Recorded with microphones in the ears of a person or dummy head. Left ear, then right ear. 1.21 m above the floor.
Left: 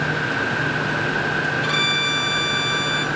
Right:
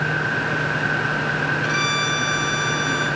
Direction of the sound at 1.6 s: 20° left (ahead or behind).